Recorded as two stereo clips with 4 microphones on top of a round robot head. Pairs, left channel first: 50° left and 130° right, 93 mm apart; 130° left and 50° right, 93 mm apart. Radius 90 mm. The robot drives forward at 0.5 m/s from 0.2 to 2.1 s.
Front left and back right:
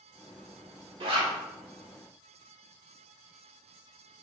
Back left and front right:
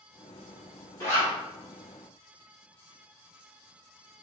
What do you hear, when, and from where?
1.0 s a zipper: 170° right, 2 m